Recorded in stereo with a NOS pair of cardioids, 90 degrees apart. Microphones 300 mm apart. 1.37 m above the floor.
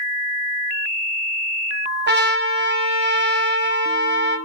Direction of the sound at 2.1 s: 35° right.